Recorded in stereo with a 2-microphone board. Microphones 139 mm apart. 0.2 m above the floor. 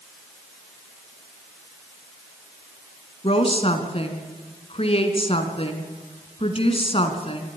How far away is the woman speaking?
About 2.5 m.